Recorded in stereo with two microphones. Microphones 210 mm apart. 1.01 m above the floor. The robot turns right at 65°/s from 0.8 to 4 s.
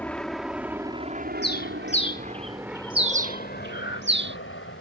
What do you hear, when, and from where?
0.0 s an aircraft: 5° left (ahead or behind); by 4.8 s 75° left (ahead or behind)
1.4 s a bird: 60° left (ahead or behind); by 4.4 s 65° right (ahead or behind)
3.7 s breathing: 65° left (ahead or behind); by 4.0 s 80° left